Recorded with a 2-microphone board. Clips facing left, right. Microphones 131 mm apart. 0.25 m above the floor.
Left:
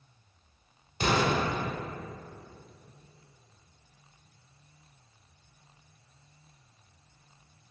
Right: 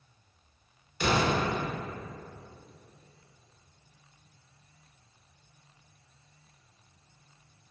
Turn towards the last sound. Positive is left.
turn(degrees=40)  # may be behind; listen again after turning